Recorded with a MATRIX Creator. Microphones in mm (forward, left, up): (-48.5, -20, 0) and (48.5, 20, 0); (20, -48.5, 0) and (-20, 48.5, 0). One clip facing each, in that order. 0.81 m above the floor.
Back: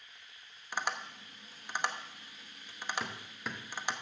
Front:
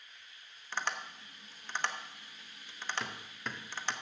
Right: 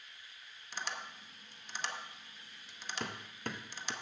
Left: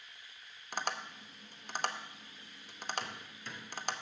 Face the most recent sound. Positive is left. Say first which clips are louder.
# back 1 dB, right 5 dB
turn(degrees=-70)